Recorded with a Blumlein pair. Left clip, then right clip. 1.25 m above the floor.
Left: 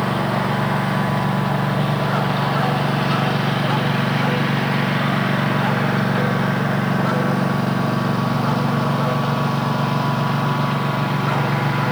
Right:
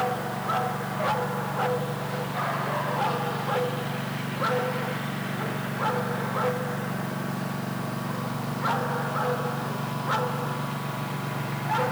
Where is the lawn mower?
60° left.